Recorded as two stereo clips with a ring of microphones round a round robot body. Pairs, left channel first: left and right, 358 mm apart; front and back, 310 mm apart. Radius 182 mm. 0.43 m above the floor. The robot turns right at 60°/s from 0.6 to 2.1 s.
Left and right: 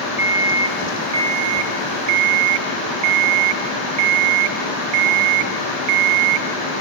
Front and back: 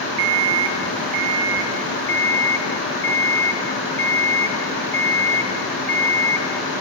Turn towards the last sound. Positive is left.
turn(degrees=-85)